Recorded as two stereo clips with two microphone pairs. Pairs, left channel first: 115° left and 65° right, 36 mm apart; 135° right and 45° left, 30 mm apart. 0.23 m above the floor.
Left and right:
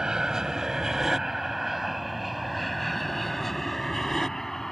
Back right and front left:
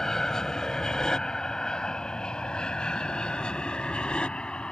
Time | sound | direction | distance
0.0 | an aircraft | 100° right | ?